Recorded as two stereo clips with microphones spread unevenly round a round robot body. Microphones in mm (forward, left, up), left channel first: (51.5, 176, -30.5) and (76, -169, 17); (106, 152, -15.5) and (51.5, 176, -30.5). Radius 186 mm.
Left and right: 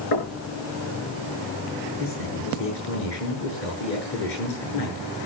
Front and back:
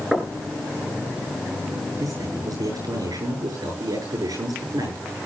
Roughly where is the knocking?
Left.